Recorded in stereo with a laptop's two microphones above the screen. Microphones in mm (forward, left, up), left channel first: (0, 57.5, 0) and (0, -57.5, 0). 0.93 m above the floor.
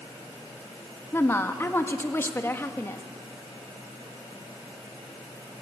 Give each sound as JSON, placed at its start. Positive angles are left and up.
{"t": 1.1, "sound": "a woman speaking", "side_deg": 20, "distance_m": 1.3}